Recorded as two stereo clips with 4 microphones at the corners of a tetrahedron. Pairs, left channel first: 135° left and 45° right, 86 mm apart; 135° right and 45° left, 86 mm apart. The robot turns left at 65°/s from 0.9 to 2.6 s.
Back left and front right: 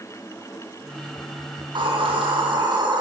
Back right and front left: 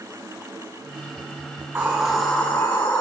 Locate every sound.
1.6 s a hiss: 10° right, 3.5 m; by 3.0 s 75° right, 3.5 m